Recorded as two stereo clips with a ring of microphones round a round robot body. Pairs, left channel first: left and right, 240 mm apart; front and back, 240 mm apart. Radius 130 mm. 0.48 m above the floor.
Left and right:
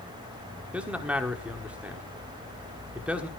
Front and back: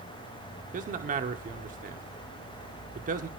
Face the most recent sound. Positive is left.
turn(degrees=-170)